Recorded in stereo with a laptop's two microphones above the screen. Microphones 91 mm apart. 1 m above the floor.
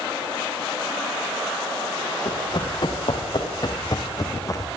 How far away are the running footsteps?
About 4.5 m.